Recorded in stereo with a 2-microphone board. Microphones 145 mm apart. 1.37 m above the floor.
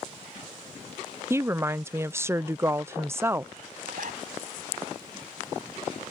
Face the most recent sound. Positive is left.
turn(degrees=-70)  # may be behind; listen again after turning